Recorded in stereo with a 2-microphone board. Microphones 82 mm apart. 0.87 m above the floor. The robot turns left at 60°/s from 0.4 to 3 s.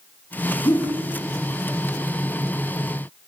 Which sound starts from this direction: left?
A whoosh, at 0.7 s.